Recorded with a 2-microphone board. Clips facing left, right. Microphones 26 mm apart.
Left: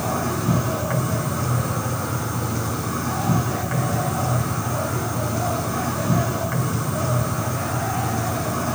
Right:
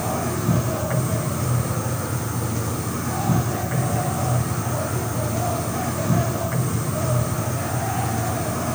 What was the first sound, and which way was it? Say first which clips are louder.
An insect: left 1 dB; 20° left (ahead or behind).